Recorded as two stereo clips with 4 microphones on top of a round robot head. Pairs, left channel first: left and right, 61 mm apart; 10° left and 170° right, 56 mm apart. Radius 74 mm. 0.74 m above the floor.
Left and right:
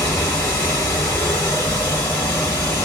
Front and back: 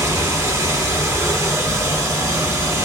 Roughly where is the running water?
Behind left.